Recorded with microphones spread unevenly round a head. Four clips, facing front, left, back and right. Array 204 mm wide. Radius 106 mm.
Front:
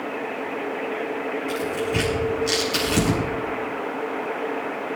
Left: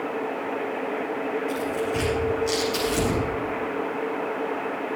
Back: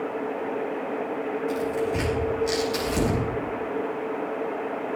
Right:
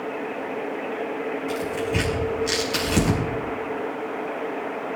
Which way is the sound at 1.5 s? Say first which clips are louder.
Even, even; 70° right.